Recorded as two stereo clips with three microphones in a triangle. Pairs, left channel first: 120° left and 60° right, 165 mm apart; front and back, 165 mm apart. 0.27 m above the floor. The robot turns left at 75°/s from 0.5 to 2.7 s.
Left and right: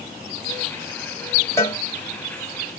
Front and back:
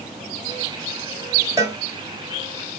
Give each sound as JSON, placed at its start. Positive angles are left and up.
{"t": 1.6, "sound": "a cowbell", "azimuth_deg": 160, "distance_m": 1.1}